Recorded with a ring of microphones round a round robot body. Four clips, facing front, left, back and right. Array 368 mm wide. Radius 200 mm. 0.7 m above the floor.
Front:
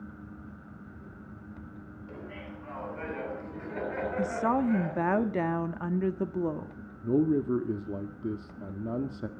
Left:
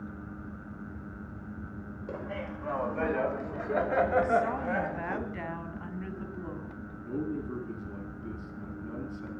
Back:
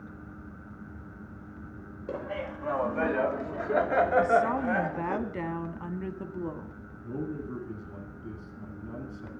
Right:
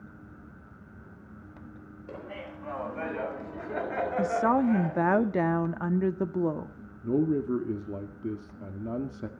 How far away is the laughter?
About 4 m.